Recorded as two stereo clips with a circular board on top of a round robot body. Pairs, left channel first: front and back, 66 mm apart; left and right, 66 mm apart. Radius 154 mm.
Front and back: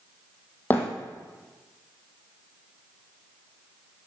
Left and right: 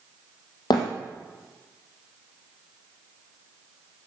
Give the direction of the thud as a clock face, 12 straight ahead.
10 o'clock.